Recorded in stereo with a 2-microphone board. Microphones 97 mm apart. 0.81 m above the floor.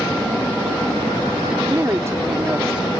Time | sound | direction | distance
1.6 | a woman speaking | 35° right (ahead or behind) | ?